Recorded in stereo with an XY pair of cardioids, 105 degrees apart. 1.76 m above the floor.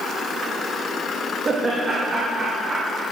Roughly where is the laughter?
Ahead right.